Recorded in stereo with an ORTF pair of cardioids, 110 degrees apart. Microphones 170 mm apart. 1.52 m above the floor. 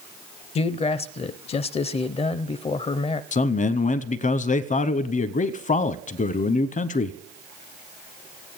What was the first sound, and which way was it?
A man speaking, 35° left.